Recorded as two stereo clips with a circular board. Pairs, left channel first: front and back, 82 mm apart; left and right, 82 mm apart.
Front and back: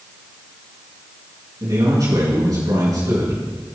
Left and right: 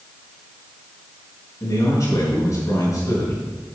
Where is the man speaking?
140° left, 5 m.